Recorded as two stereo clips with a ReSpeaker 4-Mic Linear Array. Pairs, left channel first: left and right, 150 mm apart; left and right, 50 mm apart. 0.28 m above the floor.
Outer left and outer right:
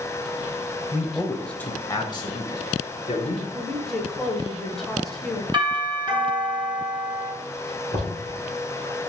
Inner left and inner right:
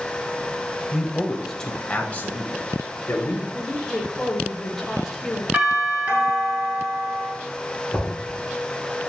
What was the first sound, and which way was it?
A man speaking, 15° right (ahead or behind).